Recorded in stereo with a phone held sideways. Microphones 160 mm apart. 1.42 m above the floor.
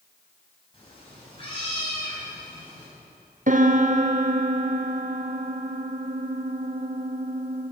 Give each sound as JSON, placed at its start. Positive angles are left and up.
{"t": 0.7, "sound": "a cat meowing", "side_deg": 35, "distance_m": 5.5}
{"t": 3.5, "sound": "a piano", "side_deg": -55, "distance_m": 0.9}